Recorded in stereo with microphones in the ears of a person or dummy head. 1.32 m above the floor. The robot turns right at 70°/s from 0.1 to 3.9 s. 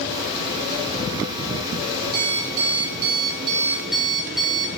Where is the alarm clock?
125° right, 2.5 m; by 4.8 s straight ahead, 2.5 m.